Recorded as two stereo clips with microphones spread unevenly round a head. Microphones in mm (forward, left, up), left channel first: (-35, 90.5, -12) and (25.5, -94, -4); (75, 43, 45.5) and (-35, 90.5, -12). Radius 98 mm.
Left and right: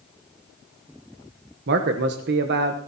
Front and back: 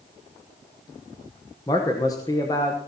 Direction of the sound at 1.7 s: 105° right.